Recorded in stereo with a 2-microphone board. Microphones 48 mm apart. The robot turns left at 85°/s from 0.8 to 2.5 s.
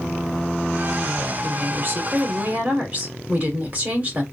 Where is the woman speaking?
30° right, 2 m; by 4.2 s 120° right, 2 m.